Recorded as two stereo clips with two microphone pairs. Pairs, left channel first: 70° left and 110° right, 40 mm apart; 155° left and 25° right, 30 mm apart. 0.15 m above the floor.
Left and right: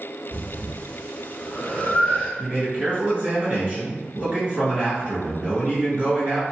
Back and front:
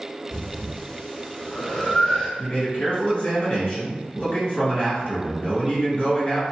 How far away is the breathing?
About 0.7 m.